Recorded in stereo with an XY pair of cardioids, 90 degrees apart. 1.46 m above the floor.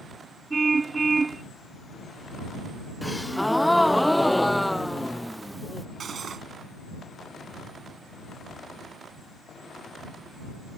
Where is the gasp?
Straight ahead.